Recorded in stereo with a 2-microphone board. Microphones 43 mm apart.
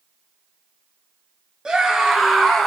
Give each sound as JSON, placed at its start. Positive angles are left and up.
{"t": 1.6, "sound": "a scream", "side_deg": -20, "distance_m": 1.9}